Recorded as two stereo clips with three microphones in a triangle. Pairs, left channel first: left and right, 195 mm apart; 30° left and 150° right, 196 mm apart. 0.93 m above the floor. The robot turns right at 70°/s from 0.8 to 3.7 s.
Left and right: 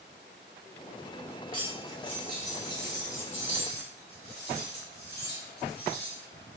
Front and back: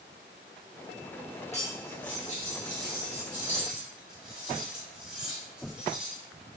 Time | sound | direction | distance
1.5 | cutlery clinking | 30° right | 1.1 m